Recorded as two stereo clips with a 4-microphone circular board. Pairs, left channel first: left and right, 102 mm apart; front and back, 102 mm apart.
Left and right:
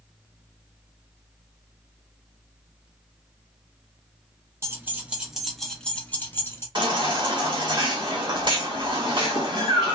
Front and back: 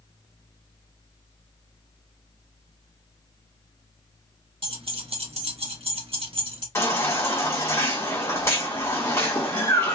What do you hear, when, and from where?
4.6 s keys jangling: 155° right, 1.1 m; by 6.7 s 155° left, 1.4 m
6.8 s a baby crying: 60° right, 1.7 m